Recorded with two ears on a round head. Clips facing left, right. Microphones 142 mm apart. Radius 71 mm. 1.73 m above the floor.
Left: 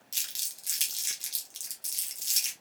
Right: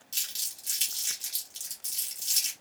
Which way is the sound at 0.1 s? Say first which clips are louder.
Right 1 dB; 15° left (ahead or behind).